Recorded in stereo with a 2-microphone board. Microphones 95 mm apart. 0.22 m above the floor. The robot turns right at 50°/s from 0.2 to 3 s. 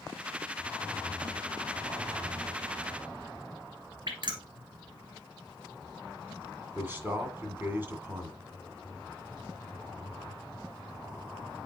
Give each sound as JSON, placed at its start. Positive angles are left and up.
{"t": 4.1, "sound": "dripping", "side_deg": -50, "distance_m": 1.8}
{"t": 6.8, "sound": "a man speaking", "side_deg": -20, "distance_m": 1.9}